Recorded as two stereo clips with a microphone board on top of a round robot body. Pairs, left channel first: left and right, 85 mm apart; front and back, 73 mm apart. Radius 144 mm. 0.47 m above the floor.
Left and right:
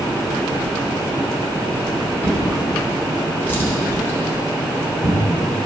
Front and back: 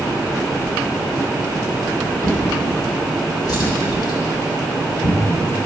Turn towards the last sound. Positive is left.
turn(degrees=25)